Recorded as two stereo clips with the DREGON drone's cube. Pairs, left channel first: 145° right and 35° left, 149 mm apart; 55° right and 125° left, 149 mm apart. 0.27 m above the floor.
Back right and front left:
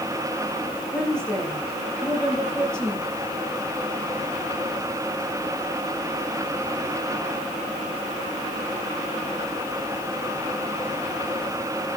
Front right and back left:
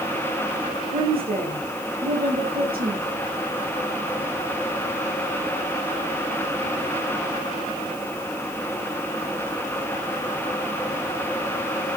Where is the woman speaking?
130° left, 6.5 m.